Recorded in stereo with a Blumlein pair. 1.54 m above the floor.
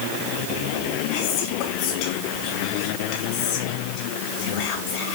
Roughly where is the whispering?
Ahead left.